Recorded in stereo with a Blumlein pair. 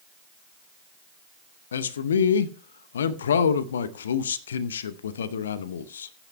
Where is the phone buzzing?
No phone buzzing in this recording.